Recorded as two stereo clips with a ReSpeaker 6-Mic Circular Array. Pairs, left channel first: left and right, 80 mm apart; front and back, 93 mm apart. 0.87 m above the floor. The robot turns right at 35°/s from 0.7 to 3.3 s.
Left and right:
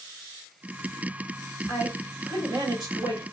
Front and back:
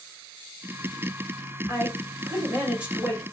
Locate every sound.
1.7 s a woman speaking: 140° right, 1.7 m; by 3.2 s 90° right, 1.7 m